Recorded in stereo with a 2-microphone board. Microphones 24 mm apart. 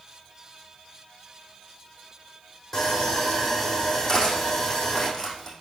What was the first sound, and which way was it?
Sawing, 10° left (ahead or behind).